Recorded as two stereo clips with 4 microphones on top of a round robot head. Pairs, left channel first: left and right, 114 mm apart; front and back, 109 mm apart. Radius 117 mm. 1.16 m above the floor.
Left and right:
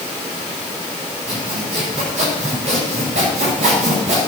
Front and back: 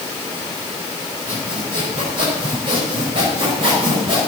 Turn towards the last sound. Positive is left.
turn(degrees=-125)